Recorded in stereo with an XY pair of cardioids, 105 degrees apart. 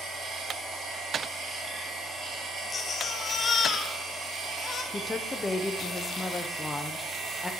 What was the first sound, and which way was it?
A machine running, 60° right.